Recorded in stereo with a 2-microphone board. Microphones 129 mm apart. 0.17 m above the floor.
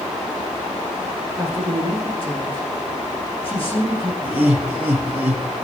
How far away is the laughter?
About 7.5 m.